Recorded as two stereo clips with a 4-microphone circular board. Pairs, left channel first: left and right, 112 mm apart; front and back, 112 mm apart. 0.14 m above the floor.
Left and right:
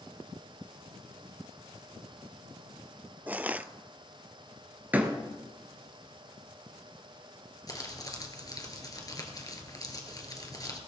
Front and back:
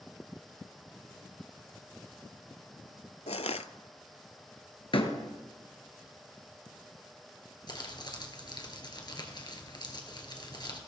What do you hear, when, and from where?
3.3 s crushing: 15° right, 0.5 m
4.9 s a door slam: 20° right, 1.7 m
7.7 s crumpling: 40° left, 2 m